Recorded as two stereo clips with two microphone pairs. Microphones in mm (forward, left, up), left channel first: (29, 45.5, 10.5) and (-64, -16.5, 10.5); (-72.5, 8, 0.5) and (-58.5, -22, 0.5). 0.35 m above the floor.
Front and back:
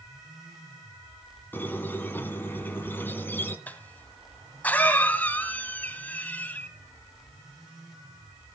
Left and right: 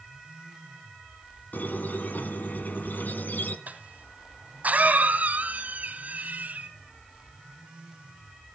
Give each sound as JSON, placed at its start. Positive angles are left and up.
{"t": 1.5, "sound": "a squeak", "azimuth_deg": 105, "distance_m": 1.7}
{"t": 3.7, "sound": "a cough", "azimuth_deg": -40, "distance_m": 2.5}